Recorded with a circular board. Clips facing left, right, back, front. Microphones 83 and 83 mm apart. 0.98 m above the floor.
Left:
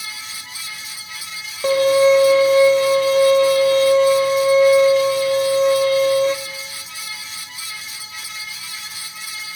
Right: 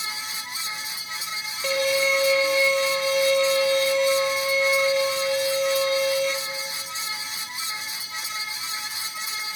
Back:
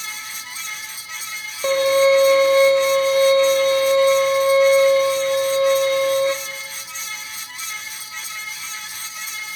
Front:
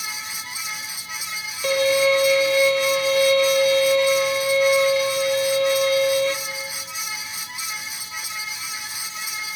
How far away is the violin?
About 0.7 m.